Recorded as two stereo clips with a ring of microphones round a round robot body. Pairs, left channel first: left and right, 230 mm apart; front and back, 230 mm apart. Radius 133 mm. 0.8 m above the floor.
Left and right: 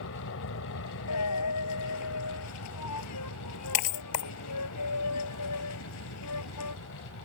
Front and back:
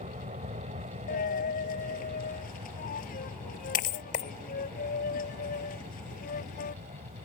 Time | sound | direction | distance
0.0 | an aircraft | 115° left | ?
1.1 | a dropped coin | 60° left | ?